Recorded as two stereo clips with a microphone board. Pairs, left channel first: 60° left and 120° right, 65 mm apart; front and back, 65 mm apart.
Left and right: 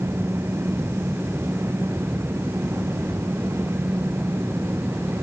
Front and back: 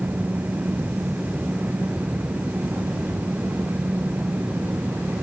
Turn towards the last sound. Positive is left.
No sound to turn to.